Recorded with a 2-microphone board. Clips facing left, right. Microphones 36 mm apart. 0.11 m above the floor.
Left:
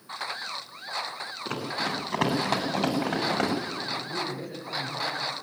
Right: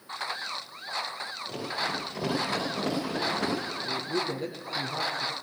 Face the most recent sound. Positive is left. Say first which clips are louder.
# right 1 dB
turn(degrees=-60)  # may be behind; listen again after turning